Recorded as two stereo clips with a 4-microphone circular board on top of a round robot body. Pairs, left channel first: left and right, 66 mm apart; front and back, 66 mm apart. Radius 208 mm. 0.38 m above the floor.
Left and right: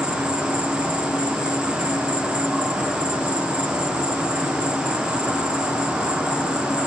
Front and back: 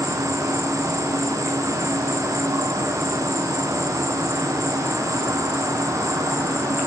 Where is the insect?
160° right, 1.2 m.